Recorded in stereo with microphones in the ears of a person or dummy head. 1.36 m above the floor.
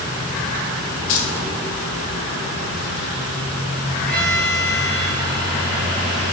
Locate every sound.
1.1 s keys jangling: 70° left (ahead or behind), 4 m
4.1 s a violin: 10° left (ahead or behind), 9 m